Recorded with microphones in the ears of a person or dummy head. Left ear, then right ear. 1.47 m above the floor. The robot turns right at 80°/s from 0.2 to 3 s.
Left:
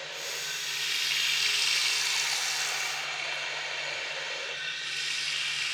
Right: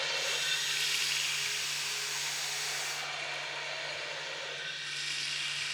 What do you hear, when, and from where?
0.0 s running water: 65° right, 4 m; by 5.8 s 160° left, 4 m